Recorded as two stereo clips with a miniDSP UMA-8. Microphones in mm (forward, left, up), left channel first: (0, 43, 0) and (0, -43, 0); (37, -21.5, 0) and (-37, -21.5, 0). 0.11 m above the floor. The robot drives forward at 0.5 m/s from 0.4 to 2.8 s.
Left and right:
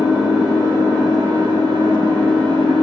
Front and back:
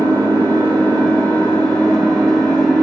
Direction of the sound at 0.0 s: 55° right.